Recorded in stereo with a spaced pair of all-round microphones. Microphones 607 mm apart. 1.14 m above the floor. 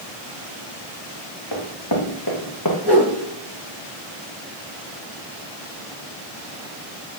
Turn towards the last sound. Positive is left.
turn(degrees=10)  # may be behind; listen again after turning